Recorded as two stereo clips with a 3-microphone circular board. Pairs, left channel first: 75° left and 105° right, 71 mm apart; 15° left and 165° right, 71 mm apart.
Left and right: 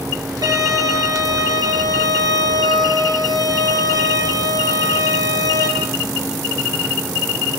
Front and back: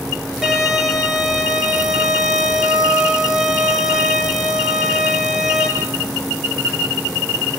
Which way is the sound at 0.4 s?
80° right.